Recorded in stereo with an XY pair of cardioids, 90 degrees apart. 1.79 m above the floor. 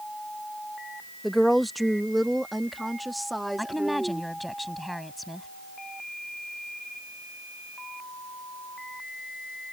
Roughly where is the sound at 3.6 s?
Ahead.